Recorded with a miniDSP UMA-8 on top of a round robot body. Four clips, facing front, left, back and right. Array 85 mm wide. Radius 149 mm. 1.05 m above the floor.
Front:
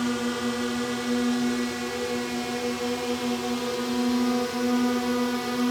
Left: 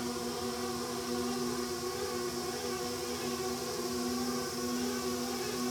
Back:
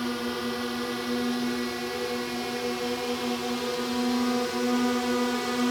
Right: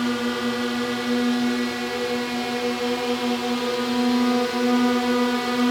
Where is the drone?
80° right; by 5.7 s 90° right.